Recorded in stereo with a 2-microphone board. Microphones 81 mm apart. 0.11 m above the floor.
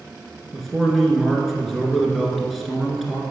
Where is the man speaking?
Centre (ahead or behind), 1.2 m.